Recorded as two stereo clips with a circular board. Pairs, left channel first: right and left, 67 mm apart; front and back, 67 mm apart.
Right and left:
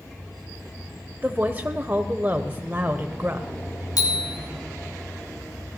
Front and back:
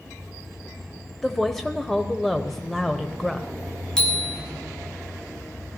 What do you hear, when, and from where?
1.2 s a woman speaking: 80° left, 0.9 m
4.0 s a bicycle bell: 80° right, 3.5 m